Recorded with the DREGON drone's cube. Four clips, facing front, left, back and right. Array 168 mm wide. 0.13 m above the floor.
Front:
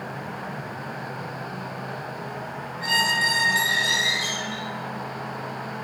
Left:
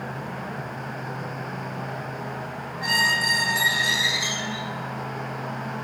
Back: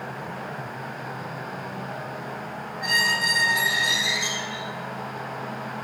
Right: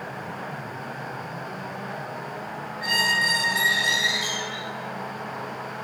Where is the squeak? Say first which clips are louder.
Left 1 dB, front 1 dB; 120° left, 3 m.